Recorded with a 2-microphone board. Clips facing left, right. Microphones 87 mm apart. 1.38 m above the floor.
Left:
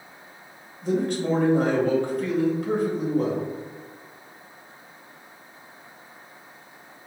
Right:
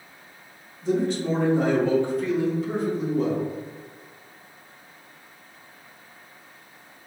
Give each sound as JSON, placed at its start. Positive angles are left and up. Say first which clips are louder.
{"t": 0.8, "sound": "a man speaking", "louder": "even", "side_deg": 55, "distance_m": 1.2}